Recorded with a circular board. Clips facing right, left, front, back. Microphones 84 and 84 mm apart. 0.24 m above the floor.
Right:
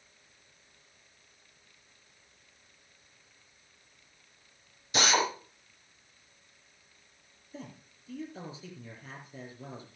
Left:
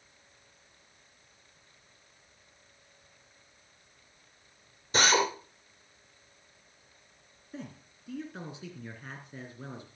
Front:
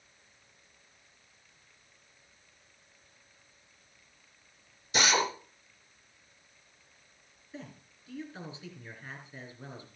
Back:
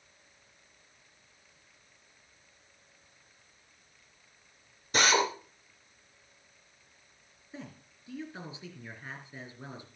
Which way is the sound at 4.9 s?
140° left.